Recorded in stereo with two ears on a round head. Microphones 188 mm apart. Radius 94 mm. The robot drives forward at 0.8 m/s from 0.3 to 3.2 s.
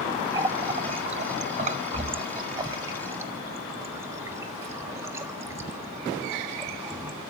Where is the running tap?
20° right (ahead or behind), 1.1 m; by 7.2 s 15° right (ahead or behind), 1.5 m.